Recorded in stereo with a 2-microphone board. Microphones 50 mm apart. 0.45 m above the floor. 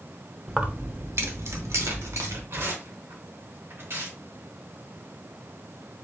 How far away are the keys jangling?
About 0.5 m.